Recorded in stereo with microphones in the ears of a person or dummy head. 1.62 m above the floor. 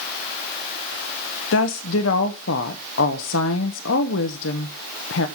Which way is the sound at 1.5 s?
75° left (ahead or behind).